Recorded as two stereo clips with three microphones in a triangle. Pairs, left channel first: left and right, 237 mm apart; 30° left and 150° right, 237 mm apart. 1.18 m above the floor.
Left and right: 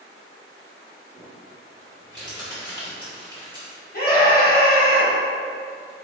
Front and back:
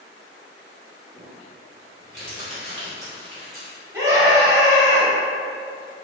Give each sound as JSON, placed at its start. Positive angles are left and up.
{"t": 1.1, "sound": "crumpling", "azimuth_deg": -25, "distance_m": 1.4}
{"t": 3.9, "sound": "a scream", "azimuth_deg": 135, "distance_m": 1.0}